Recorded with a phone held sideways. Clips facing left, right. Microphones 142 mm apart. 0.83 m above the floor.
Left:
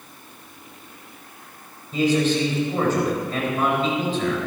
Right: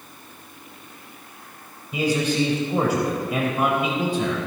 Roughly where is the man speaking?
Centre.